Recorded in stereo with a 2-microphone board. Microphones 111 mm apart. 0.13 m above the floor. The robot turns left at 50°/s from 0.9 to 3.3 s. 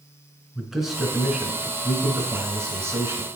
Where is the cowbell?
No cowbell in this recording.